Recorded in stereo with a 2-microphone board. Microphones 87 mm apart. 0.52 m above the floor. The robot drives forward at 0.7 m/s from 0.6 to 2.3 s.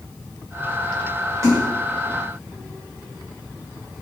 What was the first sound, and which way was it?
A splash, 35° right (ahead or behind).